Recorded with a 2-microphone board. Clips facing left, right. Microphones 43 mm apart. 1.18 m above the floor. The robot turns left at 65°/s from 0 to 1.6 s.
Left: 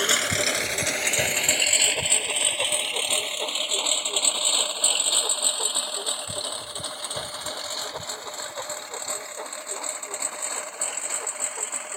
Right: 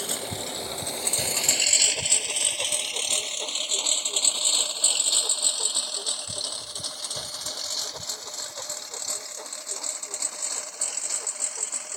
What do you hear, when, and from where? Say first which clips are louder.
0.0 s a lawn mower: left 10 dB; 55° left (ahead or behind); by 12.0 s 25° left (ahead or behind)